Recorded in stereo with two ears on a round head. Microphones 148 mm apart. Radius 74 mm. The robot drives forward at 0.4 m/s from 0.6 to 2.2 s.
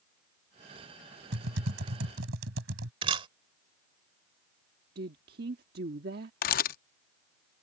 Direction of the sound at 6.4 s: 55° left (ahead or behind).